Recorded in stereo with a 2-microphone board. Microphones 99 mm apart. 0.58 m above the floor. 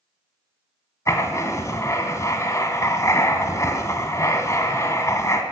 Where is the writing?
30° left (ahead or behind), 1.1 m.